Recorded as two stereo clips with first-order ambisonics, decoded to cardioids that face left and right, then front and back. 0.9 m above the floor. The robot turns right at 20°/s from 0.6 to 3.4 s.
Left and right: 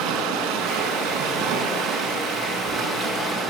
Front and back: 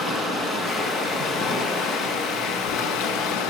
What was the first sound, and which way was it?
Running water, 60° right.